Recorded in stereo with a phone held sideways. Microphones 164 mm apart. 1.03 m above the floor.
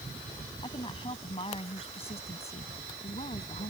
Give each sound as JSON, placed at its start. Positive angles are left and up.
{"t": 0.6, "sound": "a woman speaking", "side_deg": 30}